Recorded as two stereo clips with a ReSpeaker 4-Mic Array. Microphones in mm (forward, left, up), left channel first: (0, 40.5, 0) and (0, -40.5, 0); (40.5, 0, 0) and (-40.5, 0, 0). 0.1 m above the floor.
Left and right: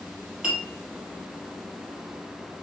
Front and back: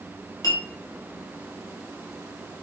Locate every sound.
0.4 s a clink: 15° right, 1.6 m